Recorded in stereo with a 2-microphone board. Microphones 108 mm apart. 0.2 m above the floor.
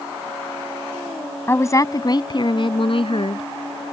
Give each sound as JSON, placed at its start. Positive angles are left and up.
{"t": 1.5, "sound": "a woman speaking", "side_deg": 25}